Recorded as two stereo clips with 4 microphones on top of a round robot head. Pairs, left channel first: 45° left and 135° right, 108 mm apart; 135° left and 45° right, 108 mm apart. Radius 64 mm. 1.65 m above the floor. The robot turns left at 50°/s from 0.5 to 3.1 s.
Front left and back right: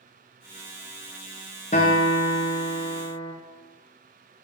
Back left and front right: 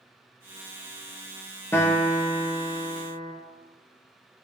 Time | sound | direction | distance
1.7 | a guitar | 65° left | 0.8 m